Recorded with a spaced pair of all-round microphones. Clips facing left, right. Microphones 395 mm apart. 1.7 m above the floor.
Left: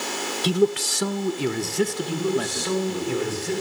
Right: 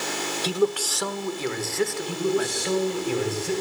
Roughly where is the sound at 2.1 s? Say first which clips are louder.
Even; centre.